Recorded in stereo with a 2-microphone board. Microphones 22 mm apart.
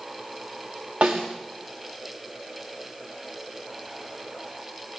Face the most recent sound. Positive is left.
turn(degrees=-85)